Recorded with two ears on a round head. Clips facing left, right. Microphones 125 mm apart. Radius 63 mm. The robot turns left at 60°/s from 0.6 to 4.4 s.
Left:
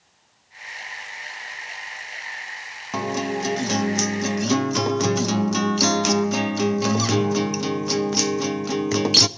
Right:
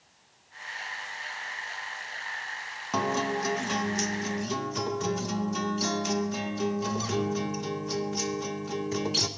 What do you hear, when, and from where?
2.9 s a guitar: 175° left, 0.9 m; by 9.3 s 90° left, 0.9 m